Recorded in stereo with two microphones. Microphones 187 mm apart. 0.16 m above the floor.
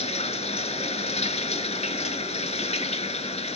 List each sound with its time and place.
0.0 s running water: 35° left (ahead or behind), 0.8 m